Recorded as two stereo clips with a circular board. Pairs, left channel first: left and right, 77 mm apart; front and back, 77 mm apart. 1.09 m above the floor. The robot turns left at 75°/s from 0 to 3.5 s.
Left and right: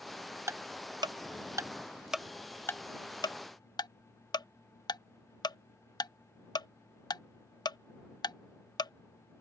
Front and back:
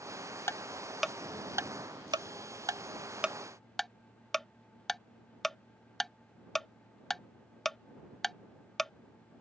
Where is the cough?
No cough in this recording.